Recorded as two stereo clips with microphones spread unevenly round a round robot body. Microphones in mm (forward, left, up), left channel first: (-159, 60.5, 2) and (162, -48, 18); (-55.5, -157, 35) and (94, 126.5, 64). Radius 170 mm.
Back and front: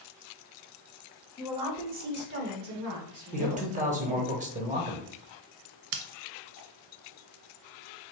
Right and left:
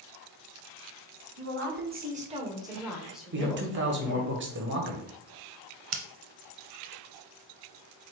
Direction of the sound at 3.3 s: 35° left.